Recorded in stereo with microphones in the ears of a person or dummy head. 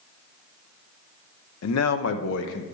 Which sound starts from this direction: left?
A man speaking, at 1.6 s.